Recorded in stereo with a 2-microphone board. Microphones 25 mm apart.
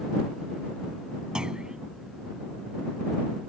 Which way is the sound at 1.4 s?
35° right (ahead or behind).